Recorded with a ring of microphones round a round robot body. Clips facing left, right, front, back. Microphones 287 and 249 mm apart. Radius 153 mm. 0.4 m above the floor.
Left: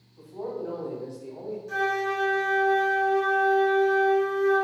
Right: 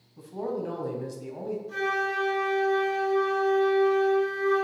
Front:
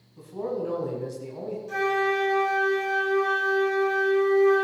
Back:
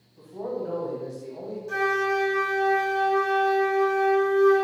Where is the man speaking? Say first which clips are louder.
Right 2 dB, front 2 dB; 55° right, 4 m.